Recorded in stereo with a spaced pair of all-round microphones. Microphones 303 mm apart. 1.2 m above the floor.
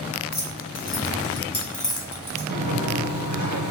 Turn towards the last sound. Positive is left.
turn(degrees=-70)  # may be behind; listen again after turning